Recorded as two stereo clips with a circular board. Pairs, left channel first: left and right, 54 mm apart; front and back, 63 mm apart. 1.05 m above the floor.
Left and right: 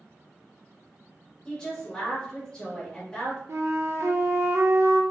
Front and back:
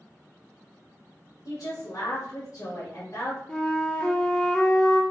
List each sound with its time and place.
1.4 s a woman speaking: 20° left, 1.3 m
3.5 s a flute: 75° right, 0.5 m